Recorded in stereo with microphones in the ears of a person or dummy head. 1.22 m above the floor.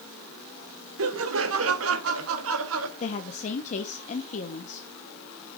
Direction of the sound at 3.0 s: 40° left (ahead or behind).